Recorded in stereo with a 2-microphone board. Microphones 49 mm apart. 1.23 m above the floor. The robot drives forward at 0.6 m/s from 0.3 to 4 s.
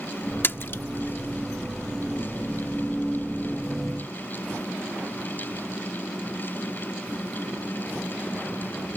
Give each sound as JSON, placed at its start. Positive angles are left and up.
{"t": 0.4, "sound": "a splash", "side_deg": 50}